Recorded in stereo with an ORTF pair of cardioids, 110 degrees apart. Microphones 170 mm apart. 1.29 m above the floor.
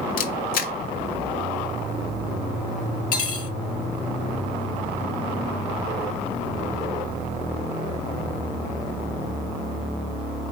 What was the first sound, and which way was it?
A camera shutter, 65° left.